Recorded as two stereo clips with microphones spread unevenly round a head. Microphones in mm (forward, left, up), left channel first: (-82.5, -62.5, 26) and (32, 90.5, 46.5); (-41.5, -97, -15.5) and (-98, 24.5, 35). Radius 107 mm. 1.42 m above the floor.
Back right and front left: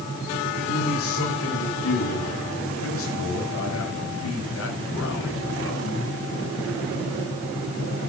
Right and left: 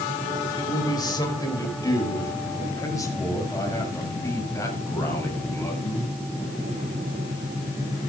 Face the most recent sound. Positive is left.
turn(degrees=-135)